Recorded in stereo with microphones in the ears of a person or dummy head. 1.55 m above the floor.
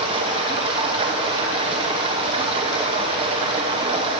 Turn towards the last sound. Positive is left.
turn(degrees=-30)  # may be behind; listen again after turning